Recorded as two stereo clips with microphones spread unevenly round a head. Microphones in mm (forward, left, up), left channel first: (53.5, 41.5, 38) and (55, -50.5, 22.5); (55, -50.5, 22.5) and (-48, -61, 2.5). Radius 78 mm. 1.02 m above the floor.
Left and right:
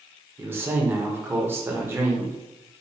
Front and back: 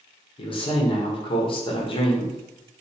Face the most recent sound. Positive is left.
turn(degrees=-30)